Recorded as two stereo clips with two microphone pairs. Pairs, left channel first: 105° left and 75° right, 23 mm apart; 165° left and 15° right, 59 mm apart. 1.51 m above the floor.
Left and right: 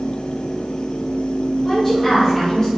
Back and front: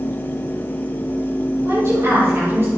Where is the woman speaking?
20° left, 5 m; by 2.7 s 30° left, 5 m.